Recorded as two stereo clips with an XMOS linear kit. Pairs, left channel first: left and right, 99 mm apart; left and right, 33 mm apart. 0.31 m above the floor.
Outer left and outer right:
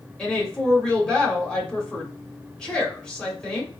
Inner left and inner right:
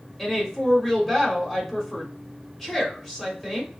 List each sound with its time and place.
0.2 s a woman speaking: 10° left (ahead or behind), 0.9 m